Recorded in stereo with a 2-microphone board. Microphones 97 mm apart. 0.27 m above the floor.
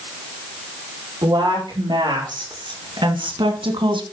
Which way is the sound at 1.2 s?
50° right (ahead or behind).